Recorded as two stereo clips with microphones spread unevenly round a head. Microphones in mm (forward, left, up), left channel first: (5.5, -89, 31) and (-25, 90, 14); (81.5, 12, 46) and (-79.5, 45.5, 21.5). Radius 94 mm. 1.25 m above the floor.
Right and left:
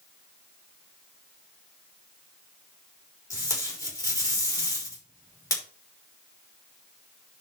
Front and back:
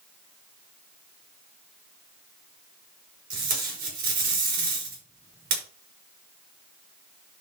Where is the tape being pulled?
155° right, 4.5 m.